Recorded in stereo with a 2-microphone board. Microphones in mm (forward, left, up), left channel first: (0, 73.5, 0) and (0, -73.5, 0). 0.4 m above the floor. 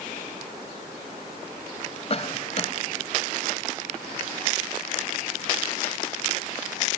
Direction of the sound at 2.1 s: 45° left (ahead or behind).